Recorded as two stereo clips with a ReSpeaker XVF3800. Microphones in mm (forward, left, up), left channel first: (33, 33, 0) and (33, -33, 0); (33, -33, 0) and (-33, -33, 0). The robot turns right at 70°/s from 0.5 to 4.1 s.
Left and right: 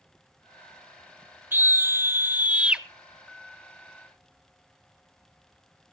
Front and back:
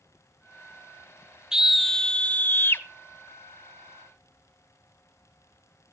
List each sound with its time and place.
1.5 s a scream: 110° right, 1.4 m; by 2.9 s 15° right, 1.4 m